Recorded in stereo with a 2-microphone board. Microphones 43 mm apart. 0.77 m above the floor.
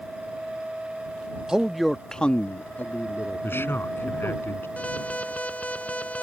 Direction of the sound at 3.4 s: 55° left (ahead or behind).